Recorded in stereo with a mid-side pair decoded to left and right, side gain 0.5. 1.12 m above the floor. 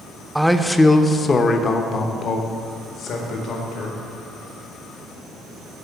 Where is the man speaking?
5° right, 0.6 m; by 4.0 s 70° left, 2 m.